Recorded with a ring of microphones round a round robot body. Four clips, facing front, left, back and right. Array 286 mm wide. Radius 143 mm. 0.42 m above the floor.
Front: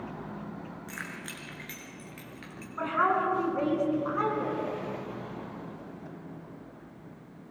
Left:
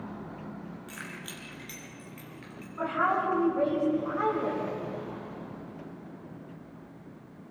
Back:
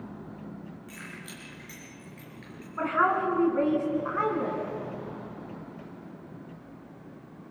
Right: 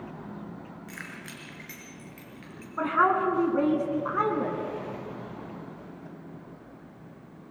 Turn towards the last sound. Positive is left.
turn(degrees=-105)